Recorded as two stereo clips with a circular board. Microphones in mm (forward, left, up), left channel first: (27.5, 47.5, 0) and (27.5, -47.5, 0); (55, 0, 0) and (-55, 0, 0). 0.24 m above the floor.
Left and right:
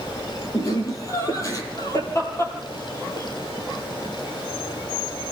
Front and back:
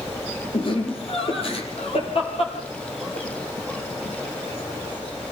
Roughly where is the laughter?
Ahead left.